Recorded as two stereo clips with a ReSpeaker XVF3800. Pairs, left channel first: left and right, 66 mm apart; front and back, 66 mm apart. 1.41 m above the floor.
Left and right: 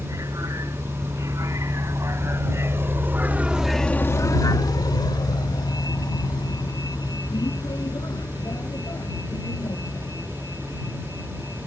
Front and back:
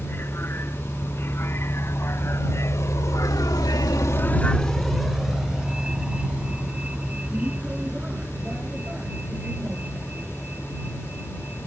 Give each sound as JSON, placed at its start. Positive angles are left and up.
{"t": 0.0, "sound": "a vehicle", "azimuth_deg": -55}